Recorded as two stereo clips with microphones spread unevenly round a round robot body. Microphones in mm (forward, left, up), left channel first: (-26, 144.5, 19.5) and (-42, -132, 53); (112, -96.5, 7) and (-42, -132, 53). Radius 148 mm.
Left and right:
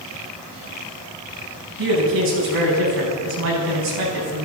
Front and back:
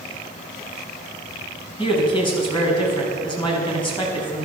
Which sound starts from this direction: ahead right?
A man speaking, at 1.8 s.